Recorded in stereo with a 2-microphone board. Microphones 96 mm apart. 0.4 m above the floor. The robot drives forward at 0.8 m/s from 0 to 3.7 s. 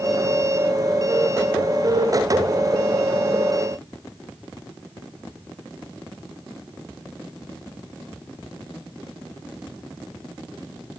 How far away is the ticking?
No ticking in this recording.